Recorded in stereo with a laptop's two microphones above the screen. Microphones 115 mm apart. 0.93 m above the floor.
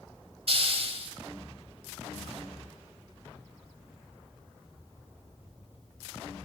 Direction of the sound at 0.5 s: 55° right (ahead or behind).